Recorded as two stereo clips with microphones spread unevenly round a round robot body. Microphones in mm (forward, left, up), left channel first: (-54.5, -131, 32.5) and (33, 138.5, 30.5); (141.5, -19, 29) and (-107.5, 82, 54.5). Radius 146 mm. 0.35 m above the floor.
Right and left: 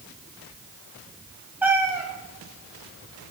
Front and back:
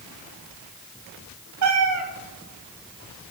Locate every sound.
1.6 s a cat meowing: 155° left, 1.3 m